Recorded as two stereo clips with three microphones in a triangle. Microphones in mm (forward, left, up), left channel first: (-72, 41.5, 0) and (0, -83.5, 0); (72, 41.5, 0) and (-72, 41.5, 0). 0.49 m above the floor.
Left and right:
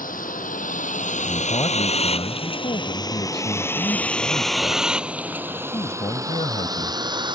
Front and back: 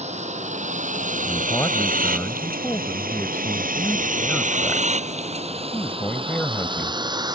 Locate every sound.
0.0 s a vehicle: 140° left; by 7.4 s 120° right
1.3 s a man speaking: 75° left